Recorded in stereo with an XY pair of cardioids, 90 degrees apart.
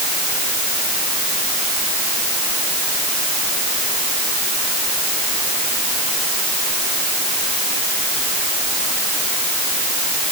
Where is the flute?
I don't hear a flute.